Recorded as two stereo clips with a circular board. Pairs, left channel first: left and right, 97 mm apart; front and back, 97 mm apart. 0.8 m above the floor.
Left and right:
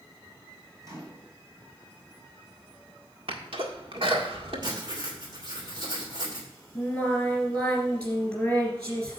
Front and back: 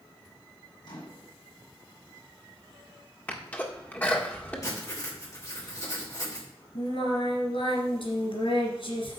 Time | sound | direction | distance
0.8 | a microwave | 35° right | 5 m
3.3 | a sneeze | 70° right | 1.7 m
4.6 | writing | 50° right | 3 m
6.8 | singing | 10° left | 2.5 m